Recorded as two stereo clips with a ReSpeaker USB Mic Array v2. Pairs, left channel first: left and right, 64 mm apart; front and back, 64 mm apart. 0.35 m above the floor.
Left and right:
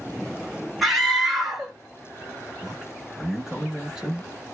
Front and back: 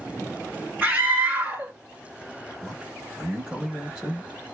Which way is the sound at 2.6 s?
155° right.